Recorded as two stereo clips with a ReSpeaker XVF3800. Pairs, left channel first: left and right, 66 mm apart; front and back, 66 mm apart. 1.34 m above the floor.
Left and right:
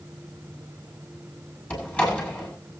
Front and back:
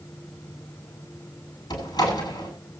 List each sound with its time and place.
1.7 s a door slam: 20° left, 8 m